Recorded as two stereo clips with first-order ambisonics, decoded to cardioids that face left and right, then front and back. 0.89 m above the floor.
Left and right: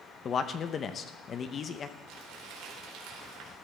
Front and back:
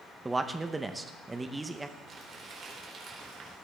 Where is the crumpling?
115° right, 4 m.